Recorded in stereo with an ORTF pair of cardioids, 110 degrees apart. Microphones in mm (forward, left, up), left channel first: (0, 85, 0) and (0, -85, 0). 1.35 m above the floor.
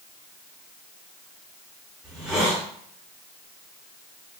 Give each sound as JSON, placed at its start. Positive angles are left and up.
{"t": 2.0, "sound": "a hiss", "azimuth_deg": -5, "distance_m": 2.5}